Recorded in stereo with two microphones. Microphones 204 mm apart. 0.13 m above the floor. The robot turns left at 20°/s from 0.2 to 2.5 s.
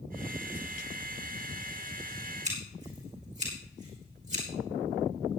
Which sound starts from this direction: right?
Scissors, at 2.5 s.